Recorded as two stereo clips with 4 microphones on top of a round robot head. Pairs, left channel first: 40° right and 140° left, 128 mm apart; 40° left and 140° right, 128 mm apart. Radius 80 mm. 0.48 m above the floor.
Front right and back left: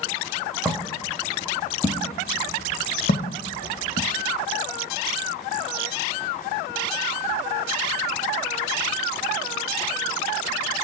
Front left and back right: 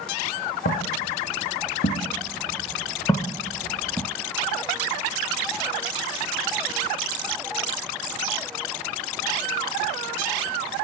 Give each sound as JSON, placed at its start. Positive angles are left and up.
{"t": 0.7, "sound": "footsteps", "azimuth_deg": 45, "distance_m": 2.5}